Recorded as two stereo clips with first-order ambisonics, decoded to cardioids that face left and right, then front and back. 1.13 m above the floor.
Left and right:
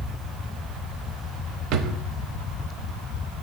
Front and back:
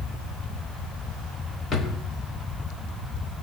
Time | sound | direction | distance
1.7 | a drawer | 60° right | 0.8 m